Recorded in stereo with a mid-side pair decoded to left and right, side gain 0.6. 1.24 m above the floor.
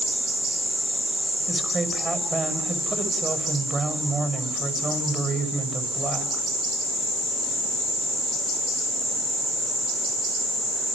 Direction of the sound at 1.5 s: 25° right.